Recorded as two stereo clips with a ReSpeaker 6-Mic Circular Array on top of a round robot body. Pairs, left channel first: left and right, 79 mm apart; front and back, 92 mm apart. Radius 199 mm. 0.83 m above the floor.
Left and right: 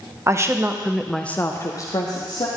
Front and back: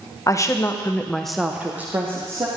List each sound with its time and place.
0.3 s a woman speaking: 45° right, 1.4 m; by 2.5 s 120° left, 1.8 m